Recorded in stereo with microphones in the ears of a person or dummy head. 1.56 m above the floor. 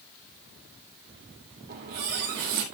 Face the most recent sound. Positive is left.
turn(degrees=-55)  # may be behind; listen again after turning